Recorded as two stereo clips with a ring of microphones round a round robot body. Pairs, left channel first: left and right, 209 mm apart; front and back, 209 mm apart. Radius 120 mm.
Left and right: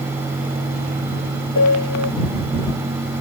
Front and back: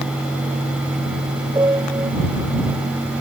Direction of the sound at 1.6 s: 100° left.